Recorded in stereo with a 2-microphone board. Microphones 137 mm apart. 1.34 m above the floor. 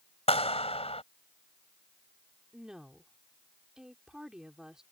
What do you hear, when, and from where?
0.3 s a clap: 50° left (ahead or behind)
2.5 s a woman speaking: 5° right (ahead or behind)